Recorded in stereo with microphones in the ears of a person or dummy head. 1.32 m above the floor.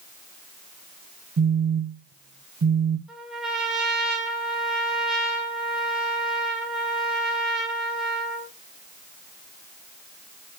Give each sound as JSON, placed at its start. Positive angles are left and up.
{"t": 1.4, "sound": "a phone buzzing", "side_deg": -55, "distance_m": 0.5}
{"t": 3.1, "sound": "a trumpet", "side_deg": -5, "distance_m": 1.6}